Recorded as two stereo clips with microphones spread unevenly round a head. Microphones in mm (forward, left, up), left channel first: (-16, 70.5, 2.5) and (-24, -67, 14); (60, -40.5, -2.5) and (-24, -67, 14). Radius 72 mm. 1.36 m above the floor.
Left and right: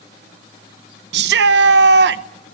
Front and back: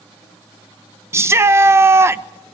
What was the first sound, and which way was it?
A shout, 100° right.